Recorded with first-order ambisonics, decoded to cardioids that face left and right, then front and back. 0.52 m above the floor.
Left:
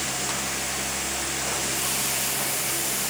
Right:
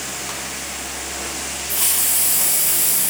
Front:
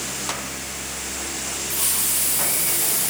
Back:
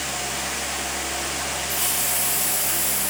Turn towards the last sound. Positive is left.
turn(degrees=-90)